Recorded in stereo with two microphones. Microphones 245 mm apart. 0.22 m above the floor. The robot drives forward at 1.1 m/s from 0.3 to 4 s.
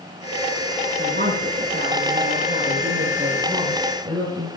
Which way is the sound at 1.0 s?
45° right (ahead or behind).